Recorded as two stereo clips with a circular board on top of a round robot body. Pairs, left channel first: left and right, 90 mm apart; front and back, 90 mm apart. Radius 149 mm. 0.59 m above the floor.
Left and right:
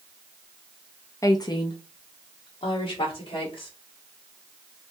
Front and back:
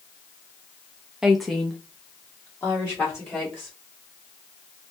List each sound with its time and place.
1.2 s a woman speaking: 100° left, 0.6 m; by 3.7 s 70° left, 2.0 m